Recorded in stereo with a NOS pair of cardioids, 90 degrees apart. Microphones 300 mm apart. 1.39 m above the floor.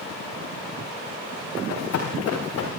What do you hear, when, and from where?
1.6 s running footsteps: 65° left, 7.5 m; by 2.7 s 60° left, 8.5 m